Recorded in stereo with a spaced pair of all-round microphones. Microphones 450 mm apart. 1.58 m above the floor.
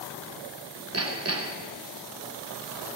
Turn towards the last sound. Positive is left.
turn(degrees=-30)  # may be behind; listen again after turning